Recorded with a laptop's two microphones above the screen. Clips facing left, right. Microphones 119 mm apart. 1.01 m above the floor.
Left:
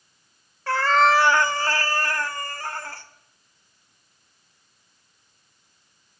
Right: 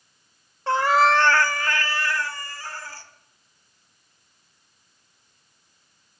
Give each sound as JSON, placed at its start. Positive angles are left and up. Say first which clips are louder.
{"t": 0.7, "sound": "a cat meowing", "louder": "even", "side_deg": -25, "distance_m": 0.5}